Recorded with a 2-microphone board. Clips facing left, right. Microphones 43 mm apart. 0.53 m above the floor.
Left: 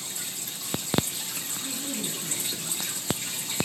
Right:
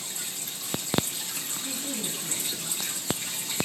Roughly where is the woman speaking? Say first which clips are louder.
Left 1 dB; centre.